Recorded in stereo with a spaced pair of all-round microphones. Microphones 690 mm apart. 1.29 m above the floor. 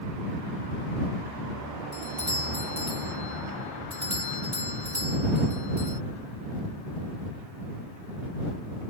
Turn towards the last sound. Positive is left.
turn(degrees=-65)  # may be behind; listen again after turning